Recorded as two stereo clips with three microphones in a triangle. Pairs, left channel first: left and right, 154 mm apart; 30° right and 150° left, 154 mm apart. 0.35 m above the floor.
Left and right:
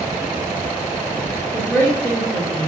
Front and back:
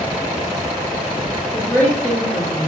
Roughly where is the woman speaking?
Ahead left.